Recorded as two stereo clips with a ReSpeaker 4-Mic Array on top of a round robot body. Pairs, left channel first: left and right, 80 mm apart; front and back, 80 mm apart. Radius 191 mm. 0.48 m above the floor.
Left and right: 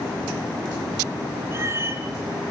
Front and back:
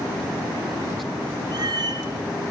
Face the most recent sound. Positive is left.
turn(degrees=-150)